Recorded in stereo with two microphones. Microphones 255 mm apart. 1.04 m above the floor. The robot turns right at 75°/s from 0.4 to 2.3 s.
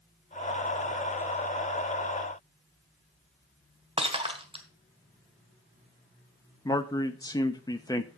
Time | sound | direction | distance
4.0 | breaking glass | 20° right (ahead or behind) | 1.4 m
6.7 | a man speaking | 15° left (ahead or behind) | 0.6 m